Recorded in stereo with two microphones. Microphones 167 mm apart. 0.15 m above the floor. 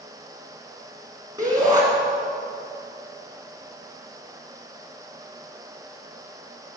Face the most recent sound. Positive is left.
turn(degrees=-20)  # may be behind; listen again after turning